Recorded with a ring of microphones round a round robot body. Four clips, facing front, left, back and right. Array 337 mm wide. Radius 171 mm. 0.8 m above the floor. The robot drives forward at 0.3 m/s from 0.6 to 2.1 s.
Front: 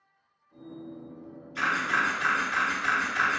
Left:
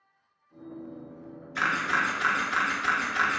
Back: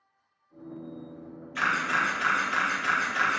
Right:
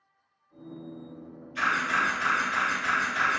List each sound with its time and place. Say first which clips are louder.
1.6 s a camera shutter: even, even; 115° left, 0.9 m; by 3.4 s 125° left, 1.0 m